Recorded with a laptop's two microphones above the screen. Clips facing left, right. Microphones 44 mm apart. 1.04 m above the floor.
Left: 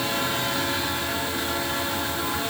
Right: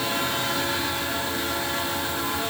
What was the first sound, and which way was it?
Only background noise.